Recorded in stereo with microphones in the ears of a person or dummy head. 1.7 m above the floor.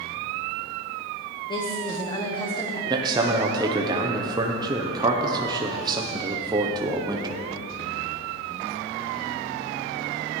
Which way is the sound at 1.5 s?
30° left (ahead or behind).